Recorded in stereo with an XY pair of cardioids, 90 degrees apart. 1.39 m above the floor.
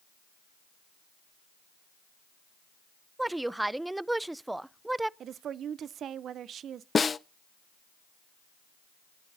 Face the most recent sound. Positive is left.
turn(degrees=40)